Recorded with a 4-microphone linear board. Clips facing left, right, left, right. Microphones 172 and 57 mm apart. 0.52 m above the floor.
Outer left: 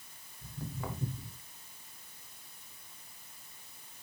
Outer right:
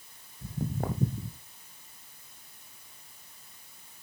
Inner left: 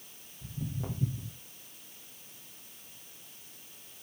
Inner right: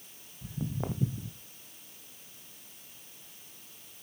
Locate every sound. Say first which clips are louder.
0.4 s footsteps: outer right 8 dB, inner right 3 dB; 50° right (ahead or behind), 1.1 m